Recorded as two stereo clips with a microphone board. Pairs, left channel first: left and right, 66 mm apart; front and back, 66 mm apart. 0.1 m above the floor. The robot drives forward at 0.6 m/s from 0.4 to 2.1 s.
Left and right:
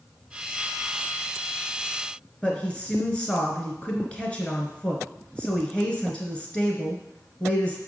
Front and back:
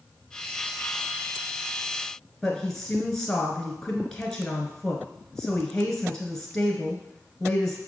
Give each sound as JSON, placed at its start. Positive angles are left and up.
{"t": 2.4, "sound": "a woman speaking", "azimuth_deg": 65, "distance_m": 1.1}